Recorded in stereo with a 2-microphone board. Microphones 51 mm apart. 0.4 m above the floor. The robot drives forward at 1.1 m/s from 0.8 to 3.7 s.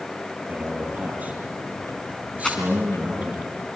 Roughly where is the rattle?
Centre.